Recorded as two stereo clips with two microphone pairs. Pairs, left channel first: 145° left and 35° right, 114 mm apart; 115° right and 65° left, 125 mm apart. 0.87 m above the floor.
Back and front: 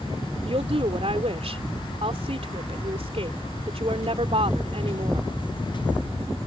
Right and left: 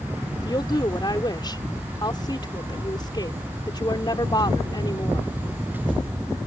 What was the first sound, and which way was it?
A woman speaking, 60° right.